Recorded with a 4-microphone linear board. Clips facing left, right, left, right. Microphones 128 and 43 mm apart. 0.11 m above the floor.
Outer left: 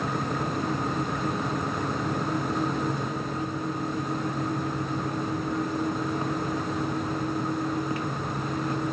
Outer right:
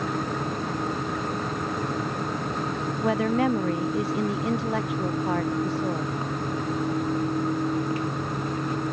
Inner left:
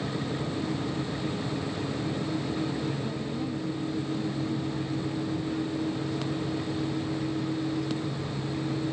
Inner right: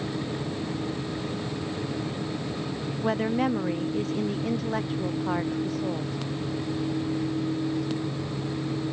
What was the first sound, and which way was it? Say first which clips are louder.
A woman speaking: outer right 8 dB, inner right 7 dB; 75° right (ahead or behind).